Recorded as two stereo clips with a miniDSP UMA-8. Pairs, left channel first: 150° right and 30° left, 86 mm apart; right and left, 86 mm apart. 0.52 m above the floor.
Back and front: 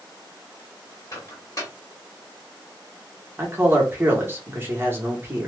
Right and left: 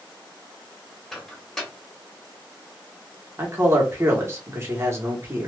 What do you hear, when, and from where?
1.1 s a microwave: 170° right, 1.3 m
3.4 s a man speaking: 70° left, 1.2 m